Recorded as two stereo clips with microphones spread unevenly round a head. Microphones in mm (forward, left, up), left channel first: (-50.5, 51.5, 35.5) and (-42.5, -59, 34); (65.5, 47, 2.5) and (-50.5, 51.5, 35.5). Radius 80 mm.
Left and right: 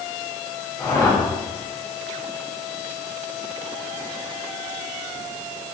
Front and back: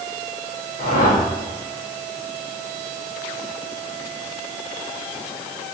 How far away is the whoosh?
About 4 m.